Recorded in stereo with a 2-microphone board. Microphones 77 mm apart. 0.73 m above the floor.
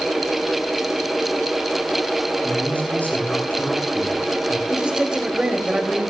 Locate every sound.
2.4 s a man speaking: 20° left (ahead or behind), 7.5 m
4.7 s a man speaking: 10° right (ahead or behind), 4.5 m